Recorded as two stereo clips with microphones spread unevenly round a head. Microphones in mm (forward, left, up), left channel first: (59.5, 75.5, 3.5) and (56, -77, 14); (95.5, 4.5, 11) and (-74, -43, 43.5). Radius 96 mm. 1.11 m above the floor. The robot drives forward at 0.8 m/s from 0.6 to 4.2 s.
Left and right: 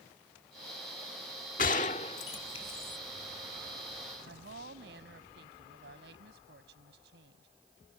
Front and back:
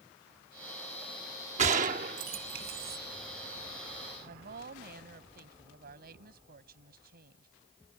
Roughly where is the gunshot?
Behind left.